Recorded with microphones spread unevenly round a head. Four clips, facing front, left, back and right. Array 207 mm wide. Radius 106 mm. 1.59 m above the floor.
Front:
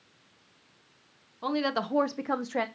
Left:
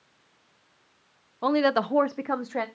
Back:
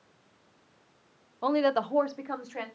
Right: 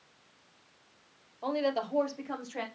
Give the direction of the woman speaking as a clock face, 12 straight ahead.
9 o'clock.